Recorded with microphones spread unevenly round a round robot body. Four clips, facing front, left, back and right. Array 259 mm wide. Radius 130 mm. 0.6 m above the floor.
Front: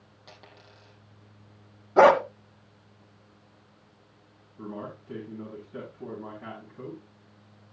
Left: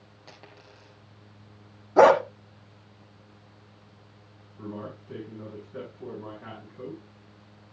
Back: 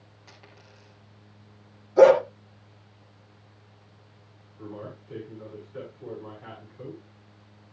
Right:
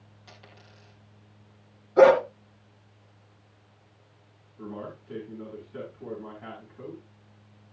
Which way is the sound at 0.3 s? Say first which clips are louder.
Left 3 dB, front 2 dB; 80° left.